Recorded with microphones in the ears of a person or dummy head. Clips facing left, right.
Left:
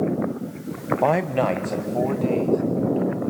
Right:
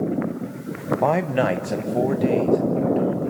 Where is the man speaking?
5° left (ahead or behind), 0.8 m; by 3.3 s 15° right (ahead or behind), 3 m.